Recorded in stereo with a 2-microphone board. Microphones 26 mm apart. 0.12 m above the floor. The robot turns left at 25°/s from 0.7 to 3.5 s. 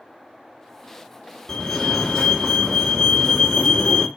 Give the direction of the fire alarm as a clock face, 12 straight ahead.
9 o'clock.